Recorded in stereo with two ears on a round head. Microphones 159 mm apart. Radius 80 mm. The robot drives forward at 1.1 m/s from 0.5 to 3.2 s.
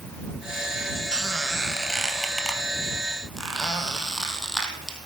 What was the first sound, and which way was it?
A squeak, 5° right (ahead or behind).